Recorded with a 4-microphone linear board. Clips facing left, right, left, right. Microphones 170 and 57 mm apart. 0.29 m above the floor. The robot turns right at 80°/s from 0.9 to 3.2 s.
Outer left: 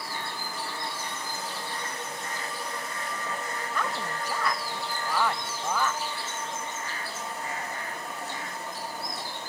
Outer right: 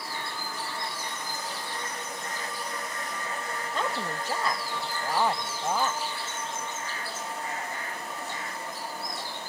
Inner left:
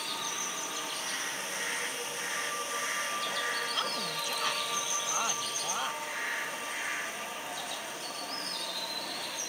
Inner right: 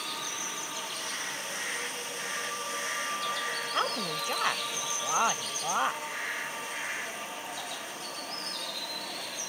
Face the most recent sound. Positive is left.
turn(degrees=-25)  # may be behind; listen again after turning